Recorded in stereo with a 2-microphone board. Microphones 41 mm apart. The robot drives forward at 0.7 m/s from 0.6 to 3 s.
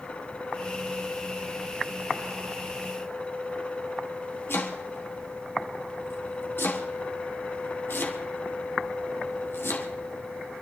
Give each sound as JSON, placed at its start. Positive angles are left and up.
{"t": 4.5, "sound": "chopping", "side_deg": 60, "distance_m": 3.5}